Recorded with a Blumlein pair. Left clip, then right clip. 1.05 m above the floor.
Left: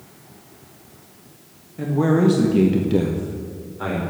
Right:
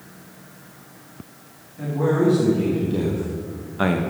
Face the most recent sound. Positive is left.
turn(degrees=-60)